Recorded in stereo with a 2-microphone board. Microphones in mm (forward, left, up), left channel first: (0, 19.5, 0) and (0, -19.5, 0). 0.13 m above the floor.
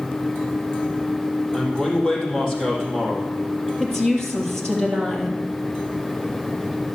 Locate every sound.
1.5 s a man speaking: 15° left (ahead or behind), 4 m
3.8 s a woman speaking: 15° left (ahead or behind), 3 m